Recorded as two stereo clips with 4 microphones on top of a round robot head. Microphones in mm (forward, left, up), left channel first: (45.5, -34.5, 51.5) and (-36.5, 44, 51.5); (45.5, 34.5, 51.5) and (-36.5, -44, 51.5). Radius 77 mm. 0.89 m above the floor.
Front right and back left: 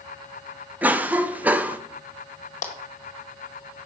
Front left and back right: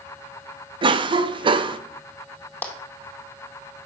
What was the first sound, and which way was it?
A cough, 150° right.